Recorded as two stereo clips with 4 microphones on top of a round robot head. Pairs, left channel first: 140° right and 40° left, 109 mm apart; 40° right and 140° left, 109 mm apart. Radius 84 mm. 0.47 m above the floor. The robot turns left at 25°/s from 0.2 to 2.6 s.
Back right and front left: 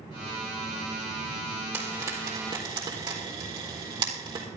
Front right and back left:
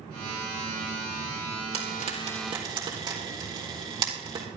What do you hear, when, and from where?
1.7 s frying: 115° left, 3.5 m; by 4.5 s 95° left, 3.5 m